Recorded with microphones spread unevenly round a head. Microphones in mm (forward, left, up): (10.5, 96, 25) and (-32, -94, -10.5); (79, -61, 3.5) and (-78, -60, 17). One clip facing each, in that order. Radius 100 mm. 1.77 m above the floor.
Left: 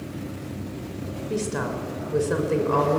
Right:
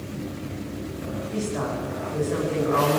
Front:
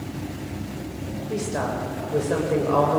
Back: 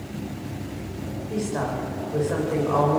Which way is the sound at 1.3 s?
70° left.